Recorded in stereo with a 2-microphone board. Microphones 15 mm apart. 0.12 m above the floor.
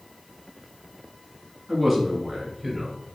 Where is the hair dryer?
No hair dryer in this recording.